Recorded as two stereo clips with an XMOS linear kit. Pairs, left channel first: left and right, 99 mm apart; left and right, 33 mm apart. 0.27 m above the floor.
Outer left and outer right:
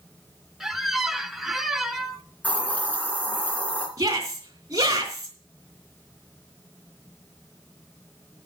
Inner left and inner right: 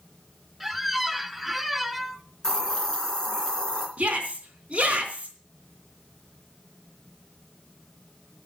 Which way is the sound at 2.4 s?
15° left (ahead or behind).